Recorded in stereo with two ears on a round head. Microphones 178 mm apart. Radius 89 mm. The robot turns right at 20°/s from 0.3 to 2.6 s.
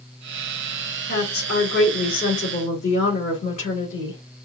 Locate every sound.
1.1 s a woman speaking: 110° left, 2 m; by 4.5 s 140° left, 2 m